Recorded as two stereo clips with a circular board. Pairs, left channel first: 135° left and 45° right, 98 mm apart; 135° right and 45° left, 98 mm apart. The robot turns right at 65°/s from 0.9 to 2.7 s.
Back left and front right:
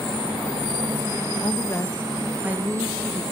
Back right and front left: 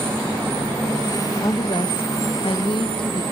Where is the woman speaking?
170° left, 1.3 m; by 3.2 s 105° right, 1.3 m.